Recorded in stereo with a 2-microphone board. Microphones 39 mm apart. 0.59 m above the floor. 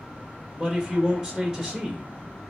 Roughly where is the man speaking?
Centre.